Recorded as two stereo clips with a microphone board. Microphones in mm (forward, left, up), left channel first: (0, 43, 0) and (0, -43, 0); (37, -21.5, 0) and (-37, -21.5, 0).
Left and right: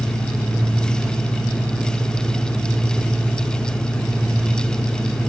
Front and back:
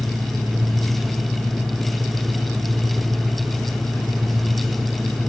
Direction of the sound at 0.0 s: 10° left.